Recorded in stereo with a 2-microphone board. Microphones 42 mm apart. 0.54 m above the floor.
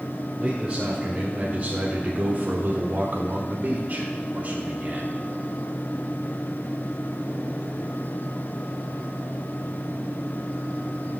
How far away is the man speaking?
About 2 m.